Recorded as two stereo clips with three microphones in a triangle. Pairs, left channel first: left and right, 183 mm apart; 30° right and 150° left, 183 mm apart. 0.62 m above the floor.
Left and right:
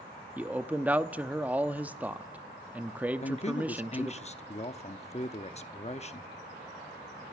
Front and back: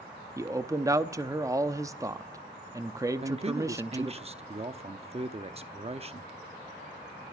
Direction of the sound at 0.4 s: 160° right.